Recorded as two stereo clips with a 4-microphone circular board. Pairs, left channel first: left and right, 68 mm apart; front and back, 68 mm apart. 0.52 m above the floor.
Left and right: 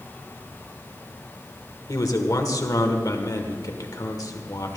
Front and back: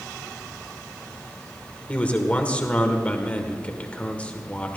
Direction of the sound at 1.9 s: 70° left.